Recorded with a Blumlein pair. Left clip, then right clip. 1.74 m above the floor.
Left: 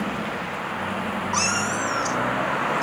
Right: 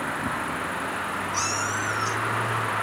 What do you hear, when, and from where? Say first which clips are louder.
1.3 s a cat meowing: left 4 dB; 45° left, 3.5 m; by 2.8 s 40° left, 4 m